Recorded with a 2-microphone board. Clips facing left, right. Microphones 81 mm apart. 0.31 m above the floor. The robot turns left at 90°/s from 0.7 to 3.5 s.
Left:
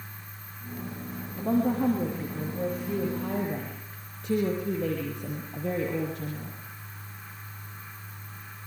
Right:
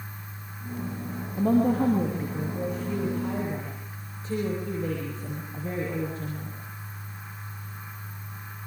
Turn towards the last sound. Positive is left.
turn(degrees=110)